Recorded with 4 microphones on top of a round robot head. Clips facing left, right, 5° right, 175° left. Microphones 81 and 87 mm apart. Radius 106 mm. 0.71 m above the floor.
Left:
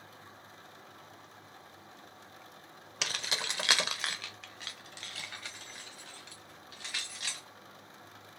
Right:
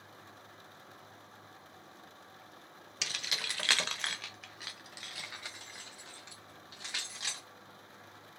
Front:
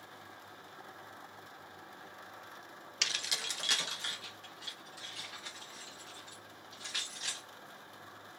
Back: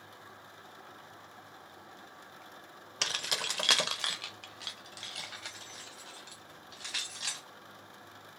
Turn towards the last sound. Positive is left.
turn(degrees=-160)